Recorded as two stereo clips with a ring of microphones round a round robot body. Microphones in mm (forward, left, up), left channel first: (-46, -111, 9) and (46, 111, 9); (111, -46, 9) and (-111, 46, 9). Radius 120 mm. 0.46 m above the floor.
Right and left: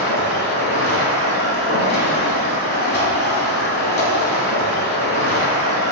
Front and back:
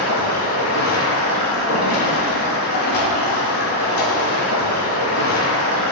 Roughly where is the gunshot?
No gunshot in this recording.